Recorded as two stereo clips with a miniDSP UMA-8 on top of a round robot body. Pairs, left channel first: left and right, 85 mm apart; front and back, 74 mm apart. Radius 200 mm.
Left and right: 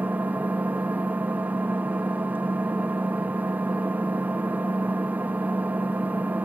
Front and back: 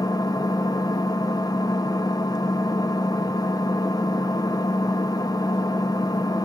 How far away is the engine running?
About 0.8 m.